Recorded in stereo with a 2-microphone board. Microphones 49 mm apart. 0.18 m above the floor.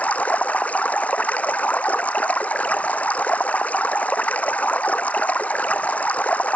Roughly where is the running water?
Left.